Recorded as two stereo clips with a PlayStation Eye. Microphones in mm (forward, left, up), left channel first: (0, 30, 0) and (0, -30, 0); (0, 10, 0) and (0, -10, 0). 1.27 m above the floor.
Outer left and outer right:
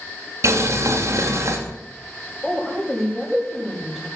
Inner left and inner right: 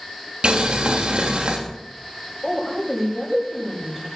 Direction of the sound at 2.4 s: Centre (ahead or behind).